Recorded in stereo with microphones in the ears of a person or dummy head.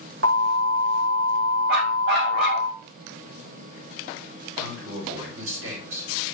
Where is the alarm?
75° right (ahead or behind), 2 m.